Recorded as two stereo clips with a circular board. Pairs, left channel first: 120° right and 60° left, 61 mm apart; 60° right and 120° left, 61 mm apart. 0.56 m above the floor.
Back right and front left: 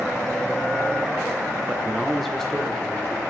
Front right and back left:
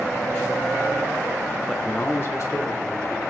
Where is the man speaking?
30° left, 0.7 m; by 3.2 s 50° right, 2.0 m.